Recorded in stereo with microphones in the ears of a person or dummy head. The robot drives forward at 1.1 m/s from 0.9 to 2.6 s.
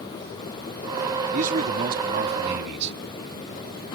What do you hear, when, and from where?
1.3 s a man speaking: 40° right (ahead or behind); by 3.0 s 55° right (ahead or behind)